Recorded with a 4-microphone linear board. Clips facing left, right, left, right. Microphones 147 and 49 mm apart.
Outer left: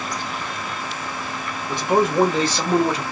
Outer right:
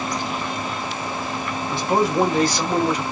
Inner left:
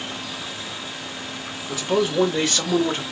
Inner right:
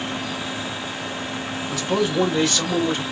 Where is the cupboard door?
No cupboard door in this recording.